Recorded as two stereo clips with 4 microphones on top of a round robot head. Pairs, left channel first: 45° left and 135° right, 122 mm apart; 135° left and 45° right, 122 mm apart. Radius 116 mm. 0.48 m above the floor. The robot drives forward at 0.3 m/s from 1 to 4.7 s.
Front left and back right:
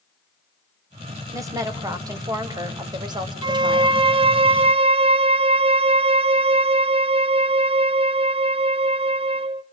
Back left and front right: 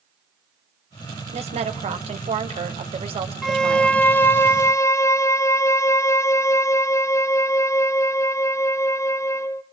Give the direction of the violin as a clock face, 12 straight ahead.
5 o'clock.